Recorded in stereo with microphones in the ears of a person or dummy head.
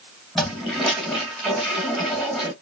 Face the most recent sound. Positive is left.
turn(degrees=-5)  # may be behind; listen again after turning